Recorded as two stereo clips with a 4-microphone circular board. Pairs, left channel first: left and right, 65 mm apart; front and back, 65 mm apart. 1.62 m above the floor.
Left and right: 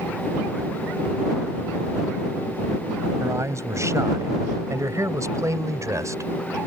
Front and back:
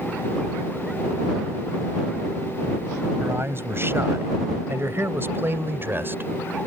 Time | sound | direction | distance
3.2 | a man speaking | 130° right | ?